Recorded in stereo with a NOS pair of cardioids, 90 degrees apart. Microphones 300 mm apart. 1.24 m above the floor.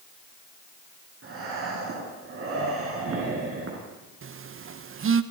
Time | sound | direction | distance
1.2 | breathing | 45° right | 8.5 m
4.2 | a phone buzzing | 40° right | 1.1 m